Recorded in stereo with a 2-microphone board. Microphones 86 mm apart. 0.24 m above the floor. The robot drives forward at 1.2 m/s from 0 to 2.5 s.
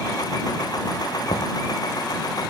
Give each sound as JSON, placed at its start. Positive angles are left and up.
{"t": 1.3, "sound": "knocking", "side_deg": 70}